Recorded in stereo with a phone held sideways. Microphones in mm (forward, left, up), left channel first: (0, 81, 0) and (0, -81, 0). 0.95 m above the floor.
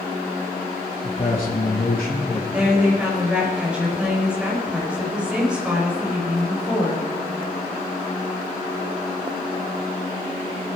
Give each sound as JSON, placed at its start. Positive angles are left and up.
{"t": 1.0, "sound": "a man speaking", "side_deg": 40, "distance_m": 1.5}
{"t": 2.5, "sound": "a woman speaking", "side_deg": -5, "distance_m": 3.5}